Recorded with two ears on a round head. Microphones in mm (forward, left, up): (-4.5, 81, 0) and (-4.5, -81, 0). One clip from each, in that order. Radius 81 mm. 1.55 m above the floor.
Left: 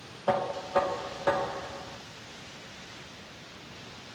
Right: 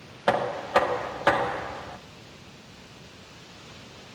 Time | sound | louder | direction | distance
0.3 | knocking | right 4 dB | 60° right (ahead or behind) | 0.5 m